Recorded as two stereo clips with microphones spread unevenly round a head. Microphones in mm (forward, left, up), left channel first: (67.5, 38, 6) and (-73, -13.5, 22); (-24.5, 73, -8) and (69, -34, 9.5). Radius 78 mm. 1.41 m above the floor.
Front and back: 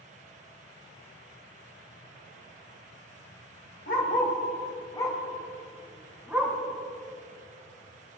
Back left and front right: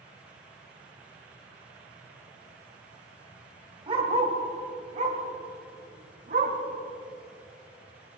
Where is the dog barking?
10° right, 1.9 m; by 6.6 s 80° right, 3 m.